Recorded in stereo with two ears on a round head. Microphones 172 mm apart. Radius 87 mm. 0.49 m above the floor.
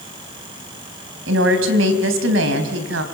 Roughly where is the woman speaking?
Right.